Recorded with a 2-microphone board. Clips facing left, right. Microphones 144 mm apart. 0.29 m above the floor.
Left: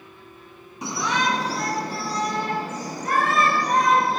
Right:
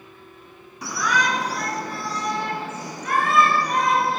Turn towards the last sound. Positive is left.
turn(degrees=40)  # may be behind; listen again after turning